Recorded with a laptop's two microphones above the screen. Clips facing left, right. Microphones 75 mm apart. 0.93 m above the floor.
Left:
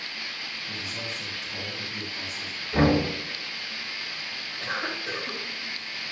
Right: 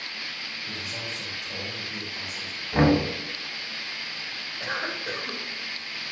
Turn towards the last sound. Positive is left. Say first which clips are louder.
# even
turn(degrees=-20)  # may be behind; listen again after turning